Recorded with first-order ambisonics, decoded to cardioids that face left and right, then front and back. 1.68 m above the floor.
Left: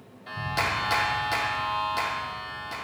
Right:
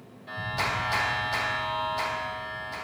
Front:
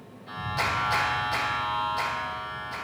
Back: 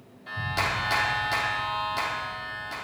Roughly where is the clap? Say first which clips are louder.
Left 2 dB, back 1 dB; behind left.